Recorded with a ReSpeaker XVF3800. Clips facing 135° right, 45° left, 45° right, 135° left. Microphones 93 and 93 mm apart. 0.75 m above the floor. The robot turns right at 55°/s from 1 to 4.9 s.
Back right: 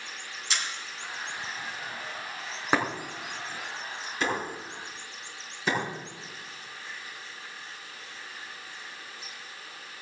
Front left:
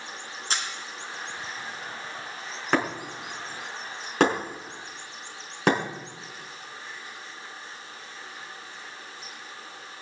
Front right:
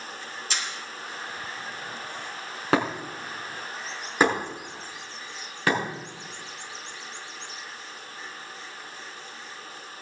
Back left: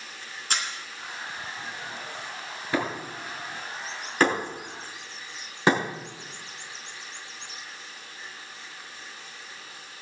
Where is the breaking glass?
55° right, 5 m; by 5.8 s 65° left, 5 m.